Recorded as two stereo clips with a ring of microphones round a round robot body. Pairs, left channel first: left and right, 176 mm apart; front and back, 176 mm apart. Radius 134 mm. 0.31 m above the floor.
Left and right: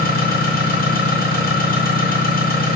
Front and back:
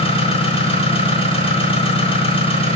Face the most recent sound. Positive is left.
turn(degrees=60)